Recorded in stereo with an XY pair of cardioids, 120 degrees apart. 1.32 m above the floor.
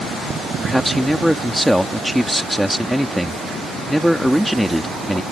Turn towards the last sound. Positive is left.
turn(degrees=0)